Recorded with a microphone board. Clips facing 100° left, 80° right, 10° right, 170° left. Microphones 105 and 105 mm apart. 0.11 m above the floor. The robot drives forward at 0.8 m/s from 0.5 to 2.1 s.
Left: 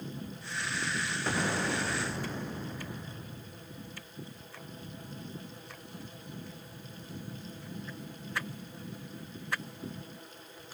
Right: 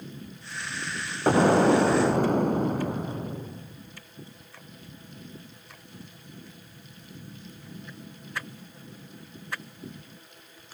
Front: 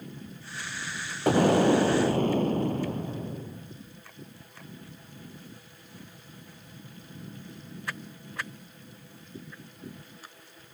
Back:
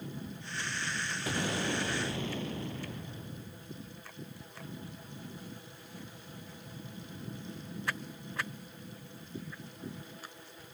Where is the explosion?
45° right; by 3.8 s 50° right.